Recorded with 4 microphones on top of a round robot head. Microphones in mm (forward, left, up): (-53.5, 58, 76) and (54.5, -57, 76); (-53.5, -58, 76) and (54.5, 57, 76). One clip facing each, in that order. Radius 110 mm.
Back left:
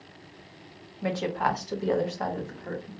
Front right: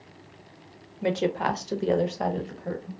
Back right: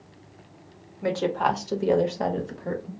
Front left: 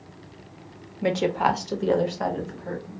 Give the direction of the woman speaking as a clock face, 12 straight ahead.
12 o'clock.